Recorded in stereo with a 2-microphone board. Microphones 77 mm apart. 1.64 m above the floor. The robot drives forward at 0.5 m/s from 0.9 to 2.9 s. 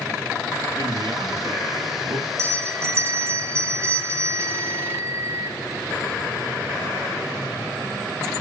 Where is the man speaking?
80° right, 4 m; by 2.3 s 75° right (ahead or behind), 4 m.